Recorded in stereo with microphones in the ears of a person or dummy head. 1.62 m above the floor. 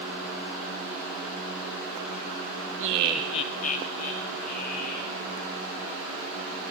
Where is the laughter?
45° right (ahead or behind), 0.7 m; by 5.2 s 55° left (ahead or behind), 3 m.